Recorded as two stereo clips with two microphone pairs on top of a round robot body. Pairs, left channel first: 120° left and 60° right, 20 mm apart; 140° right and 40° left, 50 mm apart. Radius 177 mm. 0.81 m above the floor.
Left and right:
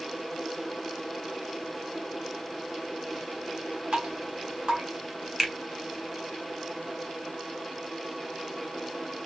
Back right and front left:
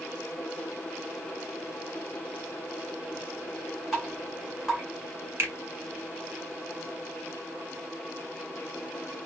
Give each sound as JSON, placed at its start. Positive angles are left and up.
{"t": 3.9, "sound": "dripping", "azimuth_deg": -40, "distance_m": 1.3}
{"t": 5.4, "sound": "a finger snap", "azimuth_deg": 10, "distance_m": 1.8}